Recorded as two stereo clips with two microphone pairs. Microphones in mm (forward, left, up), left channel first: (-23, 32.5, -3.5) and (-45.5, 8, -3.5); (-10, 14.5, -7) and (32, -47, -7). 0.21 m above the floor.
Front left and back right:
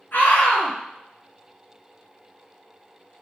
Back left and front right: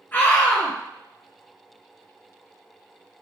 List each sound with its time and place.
0.1 s a scream: 70° left, 2.5 m